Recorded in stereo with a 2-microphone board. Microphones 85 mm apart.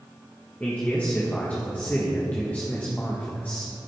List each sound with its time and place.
0.6 s a man speaking: 20° left (ahead or behind), 1.4 m